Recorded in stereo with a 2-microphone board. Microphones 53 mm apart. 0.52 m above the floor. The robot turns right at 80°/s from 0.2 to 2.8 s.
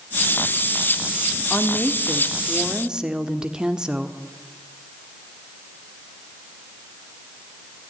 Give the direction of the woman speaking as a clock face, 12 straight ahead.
9 o'clock.